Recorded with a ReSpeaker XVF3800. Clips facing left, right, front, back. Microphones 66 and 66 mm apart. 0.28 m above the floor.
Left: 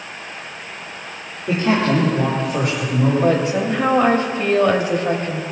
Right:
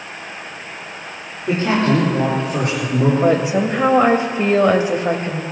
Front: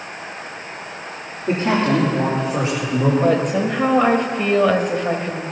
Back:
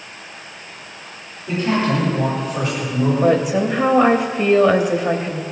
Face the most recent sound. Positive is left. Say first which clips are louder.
# right 2 dB, back 1 dB
turn(degrees=-110)